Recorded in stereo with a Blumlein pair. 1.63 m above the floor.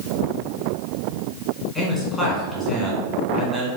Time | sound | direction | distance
1.8 | a man speaking | 15° left | 1.4 m